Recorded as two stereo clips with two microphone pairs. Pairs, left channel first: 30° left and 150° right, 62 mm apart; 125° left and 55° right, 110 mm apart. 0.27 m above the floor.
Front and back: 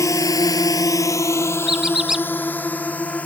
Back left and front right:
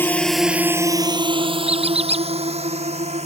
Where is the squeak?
70° right.